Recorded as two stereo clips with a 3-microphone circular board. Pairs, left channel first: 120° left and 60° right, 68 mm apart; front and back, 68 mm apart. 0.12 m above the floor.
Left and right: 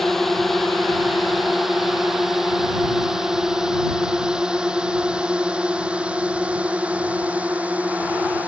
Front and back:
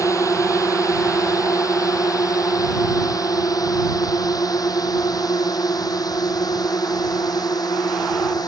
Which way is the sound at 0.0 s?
35° left.